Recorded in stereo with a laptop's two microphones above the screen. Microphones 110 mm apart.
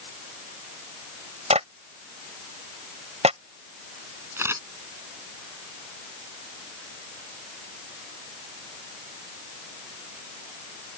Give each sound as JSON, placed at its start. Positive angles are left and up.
{"t": 1.5, "sound": "a clap", "side_deg": -80}
{"t": 4.4, "sound": "a camera shutter", "side_deg": -20}